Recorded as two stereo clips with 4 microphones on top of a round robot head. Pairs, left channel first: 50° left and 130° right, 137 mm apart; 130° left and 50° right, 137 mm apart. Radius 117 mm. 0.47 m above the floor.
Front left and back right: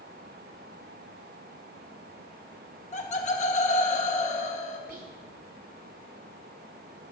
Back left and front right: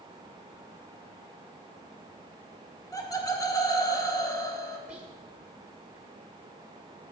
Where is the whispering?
130° right, 2 m.